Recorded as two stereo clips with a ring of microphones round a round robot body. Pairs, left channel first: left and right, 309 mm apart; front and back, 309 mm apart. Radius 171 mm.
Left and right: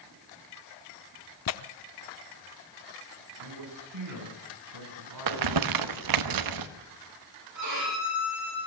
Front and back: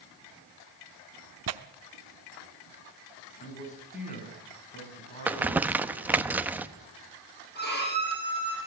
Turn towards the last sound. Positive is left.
turn(degrees=-60)